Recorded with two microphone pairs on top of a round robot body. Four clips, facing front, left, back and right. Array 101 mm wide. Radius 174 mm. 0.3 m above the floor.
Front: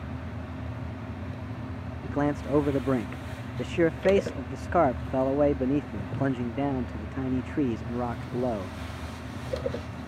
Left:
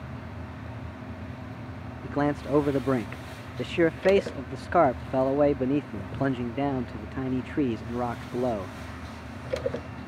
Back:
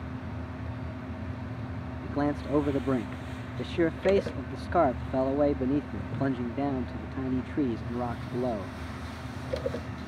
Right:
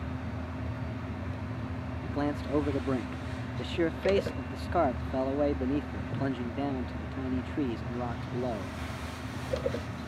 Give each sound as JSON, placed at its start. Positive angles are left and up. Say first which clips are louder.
{"t": 2.0, "sound": "a man speaking", "louder": "left 6 dB, front 2 dB", "azimuth_deg": 85}